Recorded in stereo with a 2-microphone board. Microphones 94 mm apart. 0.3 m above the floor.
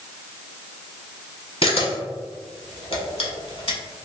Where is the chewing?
No chewing in this recording.